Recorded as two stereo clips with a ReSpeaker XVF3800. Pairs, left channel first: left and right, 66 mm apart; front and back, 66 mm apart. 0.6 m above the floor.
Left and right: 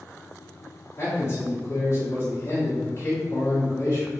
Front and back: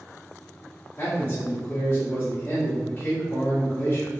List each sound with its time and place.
1.0 s a man speaking: 60° left, 1.6 m